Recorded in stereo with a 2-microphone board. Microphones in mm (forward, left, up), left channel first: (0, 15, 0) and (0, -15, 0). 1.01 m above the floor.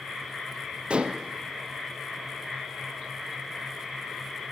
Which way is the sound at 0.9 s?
35° right (ahead or behind).